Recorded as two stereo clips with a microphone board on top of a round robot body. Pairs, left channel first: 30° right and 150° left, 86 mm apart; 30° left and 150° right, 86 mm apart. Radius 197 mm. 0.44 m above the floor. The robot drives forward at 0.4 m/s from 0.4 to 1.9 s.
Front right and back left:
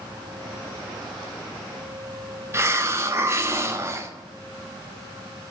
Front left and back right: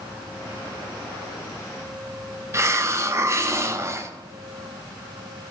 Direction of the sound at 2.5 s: 175° right.